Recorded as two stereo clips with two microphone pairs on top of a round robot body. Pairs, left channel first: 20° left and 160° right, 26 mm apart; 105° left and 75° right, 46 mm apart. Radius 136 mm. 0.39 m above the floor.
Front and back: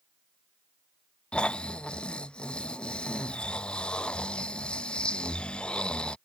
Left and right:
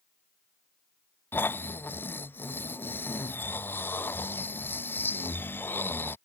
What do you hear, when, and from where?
1.3 s snoring: 60° left